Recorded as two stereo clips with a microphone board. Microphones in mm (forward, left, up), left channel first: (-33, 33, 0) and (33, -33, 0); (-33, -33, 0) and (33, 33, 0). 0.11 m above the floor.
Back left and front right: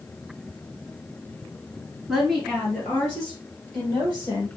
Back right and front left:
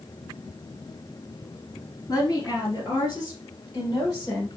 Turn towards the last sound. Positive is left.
turn(degrees=175)